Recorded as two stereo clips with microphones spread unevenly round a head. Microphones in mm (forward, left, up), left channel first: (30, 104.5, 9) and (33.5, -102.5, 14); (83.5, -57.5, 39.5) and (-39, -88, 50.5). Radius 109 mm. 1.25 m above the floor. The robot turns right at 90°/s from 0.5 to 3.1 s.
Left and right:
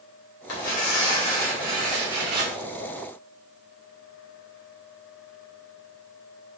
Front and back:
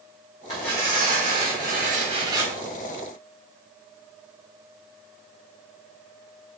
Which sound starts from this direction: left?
Tearing paper, at 0.5 s.